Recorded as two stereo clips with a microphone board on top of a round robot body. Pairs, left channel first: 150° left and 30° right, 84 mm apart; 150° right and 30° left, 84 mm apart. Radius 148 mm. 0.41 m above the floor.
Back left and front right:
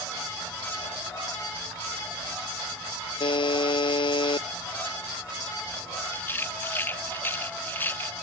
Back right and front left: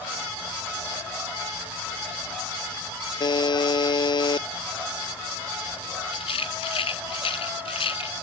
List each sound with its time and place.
3.2 s a buzzer: 175° left
6.1 s a rattle: 140° right